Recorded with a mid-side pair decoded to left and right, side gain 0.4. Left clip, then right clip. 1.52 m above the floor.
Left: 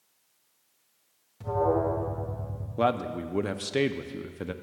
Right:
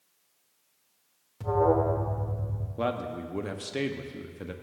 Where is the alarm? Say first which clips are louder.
Right 2 dB; 40° right, 1.3 m.